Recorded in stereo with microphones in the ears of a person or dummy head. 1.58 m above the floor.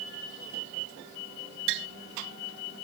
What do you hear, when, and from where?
1.7 s tapping: 75° right (ahead or behind)